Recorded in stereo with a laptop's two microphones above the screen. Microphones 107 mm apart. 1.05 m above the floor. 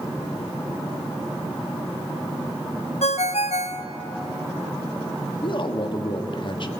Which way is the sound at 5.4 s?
50° left (ahead or behind).